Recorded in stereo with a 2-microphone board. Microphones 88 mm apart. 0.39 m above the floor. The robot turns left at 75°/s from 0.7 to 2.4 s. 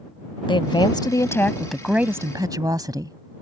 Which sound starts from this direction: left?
A woman speaking, at 0.5 s.